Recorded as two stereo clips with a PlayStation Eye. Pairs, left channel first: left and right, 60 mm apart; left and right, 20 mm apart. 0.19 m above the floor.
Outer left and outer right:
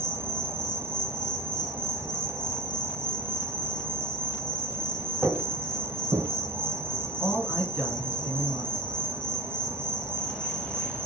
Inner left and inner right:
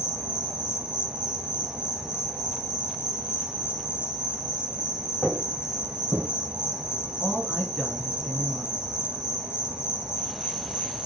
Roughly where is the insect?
Right.